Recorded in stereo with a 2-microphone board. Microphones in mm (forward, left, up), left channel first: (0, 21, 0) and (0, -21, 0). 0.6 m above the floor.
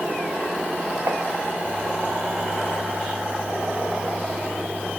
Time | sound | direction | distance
1.1 | tapping | 80° right | ?